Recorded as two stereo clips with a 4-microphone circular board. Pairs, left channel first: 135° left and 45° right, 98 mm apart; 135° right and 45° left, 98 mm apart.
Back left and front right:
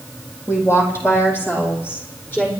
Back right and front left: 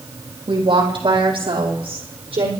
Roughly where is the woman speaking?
Left.